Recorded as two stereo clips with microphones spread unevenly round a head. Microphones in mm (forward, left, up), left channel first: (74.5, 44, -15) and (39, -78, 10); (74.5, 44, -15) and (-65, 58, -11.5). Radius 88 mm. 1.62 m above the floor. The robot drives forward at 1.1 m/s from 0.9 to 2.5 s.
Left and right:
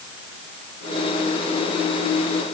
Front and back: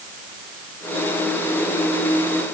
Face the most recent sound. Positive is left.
No sound to turn to.